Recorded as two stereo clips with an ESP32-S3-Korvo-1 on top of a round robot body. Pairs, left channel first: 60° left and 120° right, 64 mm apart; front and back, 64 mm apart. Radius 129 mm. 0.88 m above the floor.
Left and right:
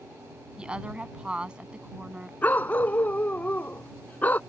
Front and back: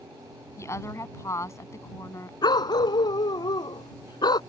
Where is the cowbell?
No cowbell in this recording.